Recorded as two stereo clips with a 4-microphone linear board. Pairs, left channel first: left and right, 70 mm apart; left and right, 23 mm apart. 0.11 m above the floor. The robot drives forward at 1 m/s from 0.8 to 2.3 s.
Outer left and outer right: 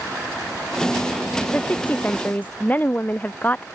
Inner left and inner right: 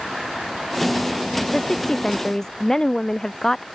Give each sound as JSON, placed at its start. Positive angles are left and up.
{"t": 1.5, "sound": "a woman speaking", "side_deg": 25}